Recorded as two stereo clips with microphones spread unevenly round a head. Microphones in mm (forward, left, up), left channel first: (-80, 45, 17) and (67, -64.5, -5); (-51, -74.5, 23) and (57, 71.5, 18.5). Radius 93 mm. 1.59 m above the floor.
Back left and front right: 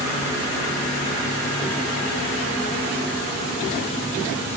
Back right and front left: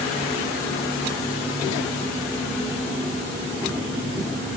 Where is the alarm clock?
I don't hear an alarm clock.